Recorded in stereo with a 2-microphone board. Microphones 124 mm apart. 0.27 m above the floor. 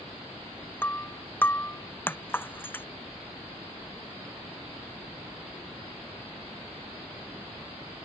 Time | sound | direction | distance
0.8 | breaking glass | 15° left (ahead or behind) | ?